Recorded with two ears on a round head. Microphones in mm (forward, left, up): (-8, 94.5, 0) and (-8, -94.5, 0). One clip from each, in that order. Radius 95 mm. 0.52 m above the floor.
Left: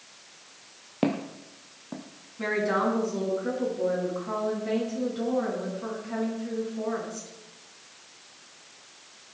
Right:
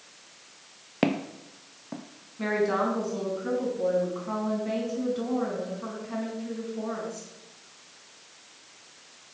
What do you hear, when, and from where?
1.0 s footsteps: 35° right (ahead or behind), 0.7 m; by 2.0 s 15° right (ahead or behind), 1.4 m
2.4 s a woman speaking: 5° right (ahead or behind), 4.5 m